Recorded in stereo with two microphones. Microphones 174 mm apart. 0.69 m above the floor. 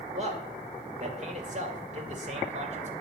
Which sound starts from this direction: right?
A man speaking, at 0.1 s.